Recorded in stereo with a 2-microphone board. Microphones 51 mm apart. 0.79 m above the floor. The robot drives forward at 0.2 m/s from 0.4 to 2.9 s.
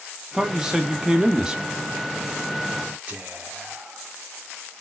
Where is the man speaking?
10° right (ahead or behind), 0.6 m; by 1.6 s 15° right (ahead or behind), 0.5 m.